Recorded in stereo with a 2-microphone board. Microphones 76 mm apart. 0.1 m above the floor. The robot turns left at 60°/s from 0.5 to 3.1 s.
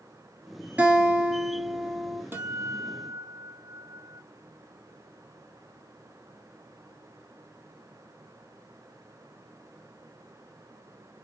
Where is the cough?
I don't hear a cough.